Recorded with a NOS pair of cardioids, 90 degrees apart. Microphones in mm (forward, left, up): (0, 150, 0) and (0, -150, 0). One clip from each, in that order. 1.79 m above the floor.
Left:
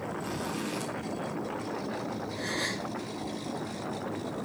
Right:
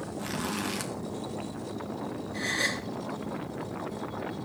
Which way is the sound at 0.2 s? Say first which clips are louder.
Right 1 dB; 65° right.